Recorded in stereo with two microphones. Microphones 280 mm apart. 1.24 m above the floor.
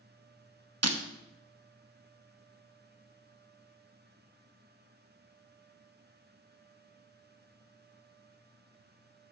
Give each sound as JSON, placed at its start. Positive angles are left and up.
{"t": 0.8, "sound": "breaking glass", "side_deg": -60, "distance_m": 0.9}